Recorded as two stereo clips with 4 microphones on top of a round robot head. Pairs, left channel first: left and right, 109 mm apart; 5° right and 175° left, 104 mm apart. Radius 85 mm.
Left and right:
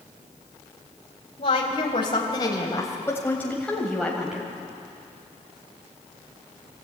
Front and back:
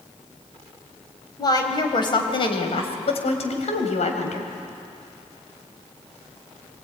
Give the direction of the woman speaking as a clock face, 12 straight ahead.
10 o'clock.